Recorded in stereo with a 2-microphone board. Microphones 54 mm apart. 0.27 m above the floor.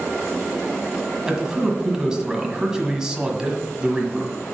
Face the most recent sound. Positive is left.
turn(degrees=-15)  # may be behind; listen again after turning